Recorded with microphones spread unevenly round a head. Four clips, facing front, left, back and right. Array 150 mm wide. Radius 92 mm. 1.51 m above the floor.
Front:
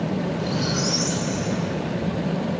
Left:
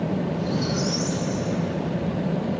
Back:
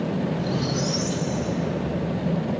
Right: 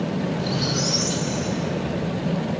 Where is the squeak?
20° right, 9 m.